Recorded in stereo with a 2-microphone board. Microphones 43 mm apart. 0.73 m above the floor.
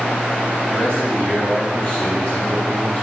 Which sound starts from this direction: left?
A man speaking, at 0.7 s.